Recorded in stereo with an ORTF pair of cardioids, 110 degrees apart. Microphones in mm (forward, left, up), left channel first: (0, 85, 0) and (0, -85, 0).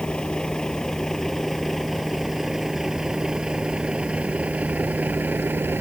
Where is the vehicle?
5° left; by 5.8 s 10° right.